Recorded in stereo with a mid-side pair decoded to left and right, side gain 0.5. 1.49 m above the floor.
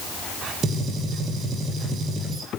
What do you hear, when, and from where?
0.6 s a gunshot: 45° right, 8.5 m